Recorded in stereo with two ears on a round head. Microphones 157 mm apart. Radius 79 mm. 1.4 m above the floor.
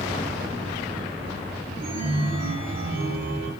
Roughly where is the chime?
Right.